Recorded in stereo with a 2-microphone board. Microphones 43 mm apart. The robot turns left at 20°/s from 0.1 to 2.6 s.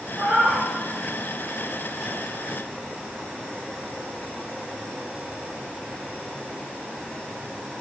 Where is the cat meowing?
30° right (ahead or behind), 1.1 m; by 0.7 s 40° right (ahead or behind), 1.1 m.